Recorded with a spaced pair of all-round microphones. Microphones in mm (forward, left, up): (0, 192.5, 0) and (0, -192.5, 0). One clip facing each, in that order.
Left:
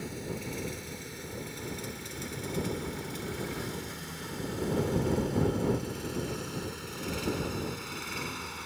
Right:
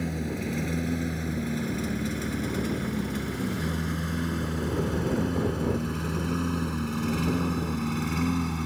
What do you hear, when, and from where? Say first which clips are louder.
0.0 s a lawn mower: right 7 dB; 75° right (ahead or behind); by 8.7 s 65° right (ahead or behind)